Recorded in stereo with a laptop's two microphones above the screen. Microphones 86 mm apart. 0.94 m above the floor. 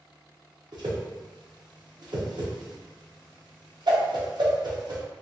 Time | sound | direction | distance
0.7 | a whoosh | 55° right (ahead or behind) | 0.6 m